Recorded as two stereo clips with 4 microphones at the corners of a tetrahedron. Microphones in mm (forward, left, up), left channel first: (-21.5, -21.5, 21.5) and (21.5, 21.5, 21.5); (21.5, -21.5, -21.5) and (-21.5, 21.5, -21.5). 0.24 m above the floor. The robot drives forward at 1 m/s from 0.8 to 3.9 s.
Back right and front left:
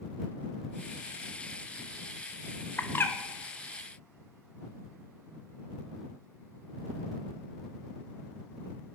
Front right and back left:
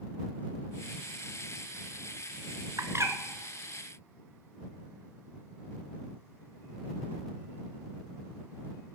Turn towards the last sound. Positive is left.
turn(degrees=175)